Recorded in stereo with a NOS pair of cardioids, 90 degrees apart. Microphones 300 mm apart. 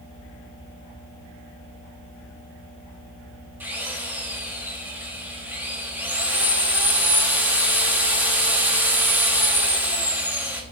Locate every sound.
3.6 s a drill: 5° right, 3.5 m